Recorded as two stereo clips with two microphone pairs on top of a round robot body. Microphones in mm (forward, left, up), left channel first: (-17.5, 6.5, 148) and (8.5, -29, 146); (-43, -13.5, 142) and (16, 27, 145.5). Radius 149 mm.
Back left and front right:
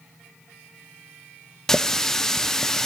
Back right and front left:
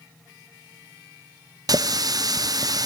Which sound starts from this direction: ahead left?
A running tap, at 1.7 s.